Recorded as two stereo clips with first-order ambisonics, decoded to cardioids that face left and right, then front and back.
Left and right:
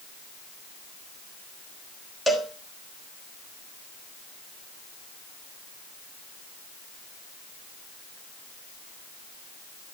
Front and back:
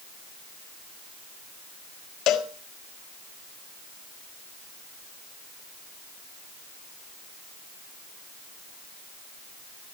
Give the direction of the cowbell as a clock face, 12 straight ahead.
12 o'clock.